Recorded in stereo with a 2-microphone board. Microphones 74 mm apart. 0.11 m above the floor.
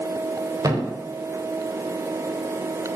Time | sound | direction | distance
0.6 | a thud | 55° right (ahead or behind) | 6.5 m